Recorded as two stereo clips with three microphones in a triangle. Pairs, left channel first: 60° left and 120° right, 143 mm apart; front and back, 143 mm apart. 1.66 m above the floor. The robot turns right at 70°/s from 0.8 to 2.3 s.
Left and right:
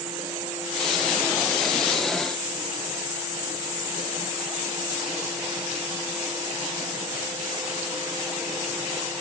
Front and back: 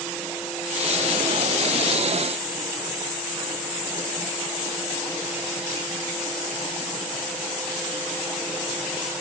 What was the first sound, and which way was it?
Only background noise.